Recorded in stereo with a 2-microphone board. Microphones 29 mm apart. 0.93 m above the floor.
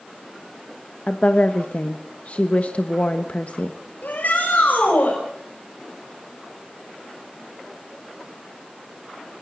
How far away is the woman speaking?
About 1.2 m.